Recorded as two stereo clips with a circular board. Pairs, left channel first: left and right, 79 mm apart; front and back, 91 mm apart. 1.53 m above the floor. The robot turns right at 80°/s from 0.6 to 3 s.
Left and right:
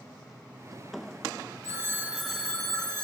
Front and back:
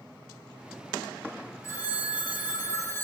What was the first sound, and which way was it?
A phone ringing, 50° right.